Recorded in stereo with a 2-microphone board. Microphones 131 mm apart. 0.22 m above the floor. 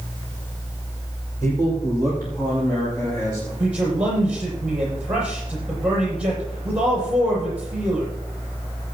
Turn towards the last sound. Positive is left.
turn(degrees=-10)  # may be behind; listen again after turning